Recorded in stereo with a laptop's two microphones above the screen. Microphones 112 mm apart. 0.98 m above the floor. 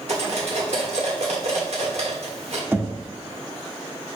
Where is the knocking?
20° right (ahead or behind), 0.8 m.